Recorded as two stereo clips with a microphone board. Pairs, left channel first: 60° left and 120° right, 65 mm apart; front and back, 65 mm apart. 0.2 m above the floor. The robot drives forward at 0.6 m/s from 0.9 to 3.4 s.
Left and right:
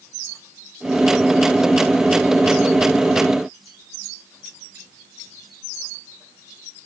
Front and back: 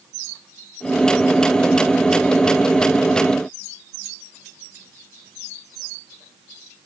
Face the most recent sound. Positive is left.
No sound to turn to.